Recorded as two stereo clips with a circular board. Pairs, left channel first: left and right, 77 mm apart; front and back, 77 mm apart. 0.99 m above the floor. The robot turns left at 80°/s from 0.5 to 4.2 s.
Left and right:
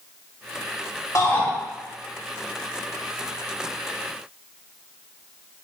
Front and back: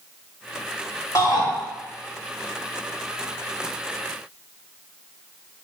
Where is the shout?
45° left, 1.5 m; by 1.5 s 15° left, 1.5 m.